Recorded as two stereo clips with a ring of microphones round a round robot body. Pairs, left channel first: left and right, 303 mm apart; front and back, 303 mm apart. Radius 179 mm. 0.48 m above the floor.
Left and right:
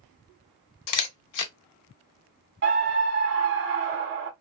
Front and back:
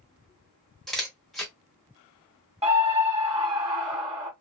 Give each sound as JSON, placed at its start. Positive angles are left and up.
{"t": 0.9, "sound": "a camera shutter", "azimuth_deg": 90, "distance_m": 0.6}
{"t": 2.6, "sound": "a scream", "azimuth_deg": -115, "distance_m": 0.9}